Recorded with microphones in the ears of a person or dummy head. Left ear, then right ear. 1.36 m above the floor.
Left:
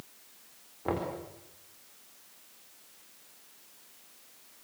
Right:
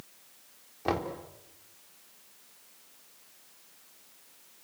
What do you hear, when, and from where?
0.8 s knocking: 85° right, 4 m